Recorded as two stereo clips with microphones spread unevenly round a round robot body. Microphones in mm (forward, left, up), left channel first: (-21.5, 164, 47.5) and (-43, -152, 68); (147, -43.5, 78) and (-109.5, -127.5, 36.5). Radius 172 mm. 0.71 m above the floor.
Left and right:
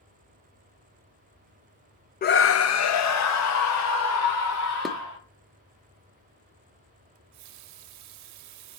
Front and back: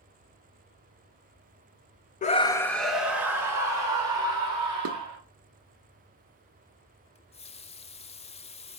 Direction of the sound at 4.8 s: 175° left.